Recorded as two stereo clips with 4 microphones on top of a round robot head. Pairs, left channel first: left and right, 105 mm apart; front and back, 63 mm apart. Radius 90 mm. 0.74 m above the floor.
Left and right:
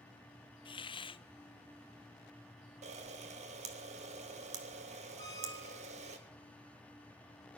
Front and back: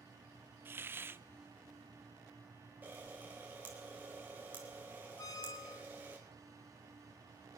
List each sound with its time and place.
0.7 s a hiss: 125° left, 0.5 m
2.8 s a camera shutter: 110° right, 1.5 m
5.2 s a squeak: 25° left, 1.2 m